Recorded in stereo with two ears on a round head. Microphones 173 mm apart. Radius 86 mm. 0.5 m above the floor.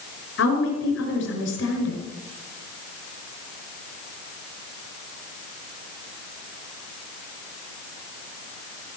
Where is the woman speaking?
70° left (ahead or behind), 6 m.